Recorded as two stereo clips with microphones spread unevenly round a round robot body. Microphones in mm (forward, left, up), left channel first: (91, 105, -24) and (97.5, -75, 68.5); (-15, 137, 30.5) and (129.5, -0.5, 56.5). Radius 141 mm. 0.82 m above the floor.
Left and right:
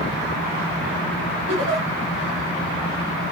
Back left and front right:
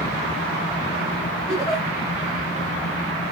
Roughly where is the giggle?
Behind right.